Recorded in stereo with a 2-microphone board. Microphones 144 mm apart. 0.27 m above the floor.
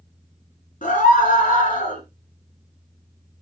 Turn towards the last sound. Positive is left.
turn(degrees=65)  # may be behind; listen again after turning